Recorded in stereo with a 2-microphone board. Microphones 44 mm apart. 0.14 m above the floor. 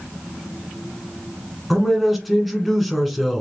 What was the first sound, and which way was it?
A man speaking, centre (ahead or behind).